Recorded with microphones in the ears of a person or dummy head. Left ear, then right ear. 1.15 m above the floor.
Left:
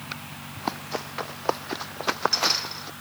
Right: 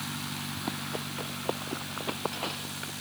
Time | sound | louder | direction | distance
0.6 | running footsteps | left 8 dB | 45° left (ahead or behind) | ?